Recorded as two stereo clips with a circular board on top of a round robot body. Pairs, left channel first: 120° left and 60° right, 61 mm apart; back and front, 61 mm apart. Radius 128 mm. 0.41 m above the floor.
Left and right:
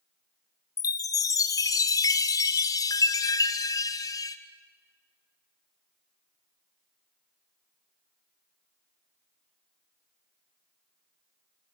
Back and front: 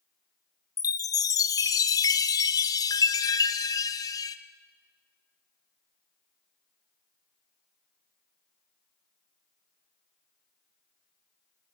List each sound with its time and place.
0.8 s a chime: 150° left, 0.6 m